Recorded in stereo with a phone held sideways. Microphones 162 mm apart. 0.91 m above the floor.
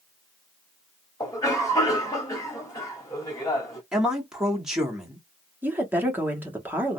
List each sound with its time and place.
1.2 s a cough: 20° left (ahead or behind), 2.5 m
3.9 s a man speaking: 5° right (ahead or behind), 1.7 m
5.6 s a woman speaking: 10° right (ahead or behind), 1.4 m